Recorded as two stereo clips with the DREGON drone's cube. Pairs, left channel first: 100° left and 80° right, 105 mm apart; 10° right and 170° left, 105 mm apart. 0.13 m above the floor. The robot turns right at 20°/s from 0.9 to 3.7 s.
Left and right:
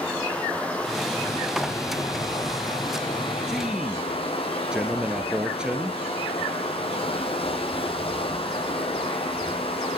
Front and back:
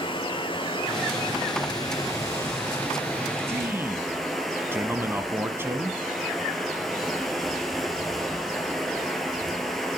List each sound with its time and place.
0.0 s running water: 20° left, 1.9 m; by 10.0 s 80° left, 1.9 m
3.5 s a man speaking: 155° right, 1.1 m